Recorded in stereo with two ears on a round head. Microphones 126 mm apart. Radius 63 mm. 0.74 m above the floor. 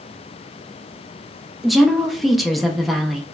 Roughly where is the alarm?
No alarm in this recording.